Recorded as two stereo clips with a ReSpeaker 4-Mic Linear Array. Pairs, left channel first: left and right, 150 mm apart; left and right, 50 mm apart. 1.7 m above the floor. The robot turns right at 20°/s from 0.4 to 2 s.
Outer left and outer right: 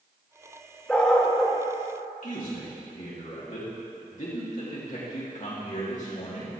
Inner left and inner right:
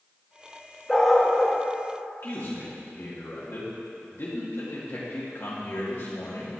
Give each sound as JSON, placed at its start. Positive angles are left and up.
{"t": 0.9, "sound": "a dog barking", "side_deg": 5, "distance_m": 1.1}
{"t": 2.2, "sound": "a man speaking", "side_deg": 55, "distance_m": 2.5}